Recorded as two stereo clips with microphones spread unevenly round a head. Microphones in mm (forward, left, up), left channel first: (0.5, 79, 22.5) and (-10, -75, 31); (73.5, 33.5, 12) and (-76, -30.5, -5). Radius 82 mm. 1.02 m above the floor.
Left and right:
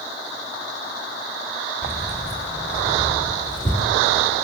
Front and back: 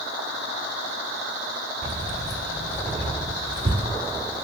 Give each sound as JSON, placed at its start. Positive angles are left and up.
{"t": 1.8, "sound": "keys jangling", "azimuth_deg": 165, "distance_m": 3.0}